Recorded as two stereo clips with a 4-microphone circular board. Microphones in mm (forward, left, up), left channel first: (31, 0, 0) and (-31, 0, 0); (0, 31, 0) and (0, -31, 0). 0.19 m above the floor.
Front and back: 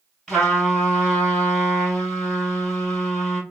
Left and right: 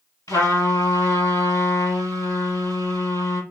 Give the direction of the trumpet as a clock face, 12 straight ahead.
9 o'clock.